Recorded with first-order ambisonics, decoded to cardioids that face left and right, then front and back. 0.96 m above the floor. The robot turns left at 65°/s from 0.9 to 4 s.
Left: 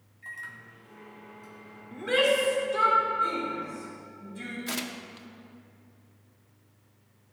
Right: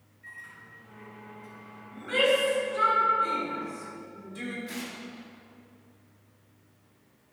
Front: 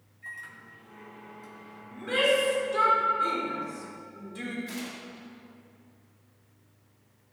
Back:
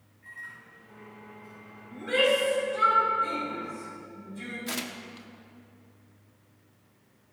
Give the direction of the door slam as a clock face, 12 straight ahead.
No door slam in this recording.